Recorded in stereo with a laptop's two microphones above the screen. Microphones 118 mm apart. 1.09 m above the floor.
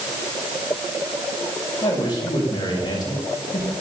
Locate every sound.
1.8 s a man speaking: 40° left (ahead or behind), 6.5 m